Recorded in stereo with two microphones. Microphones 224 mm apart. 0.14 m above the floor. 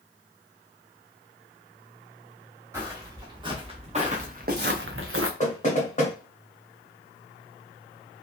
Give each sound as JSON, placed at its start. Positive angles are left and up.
{"t": 2.7, "sound": "footsteps", "side_deg": -15, "distance_m": 1.9}
{"t": 5.4, "sound": "knocking", "side_deg": 35, "distance_m": 1.3}